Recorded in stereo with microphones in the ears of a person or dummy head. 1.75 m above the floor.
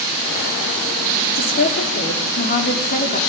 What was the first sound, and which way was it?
A woman speaking, 40° left (ahead or behind).